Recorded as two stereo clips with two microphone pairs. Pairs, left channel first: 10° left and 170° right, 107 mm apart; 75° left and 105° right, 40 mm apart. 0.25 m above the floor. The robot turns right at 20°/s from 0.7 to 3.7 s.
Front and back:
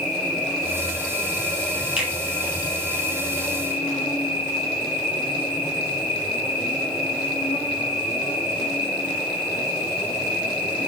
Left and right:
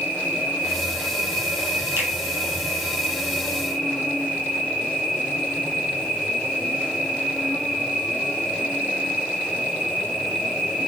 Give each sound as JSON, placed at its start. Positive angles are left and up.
{"t": 0.0, "sound": "an insect", "azimuth_deg": -90, "distance_m": 5.0}
{"t": 2.0, "sound": "a finger snap", "azimuth_deg": -90, "distance_m": 5.0}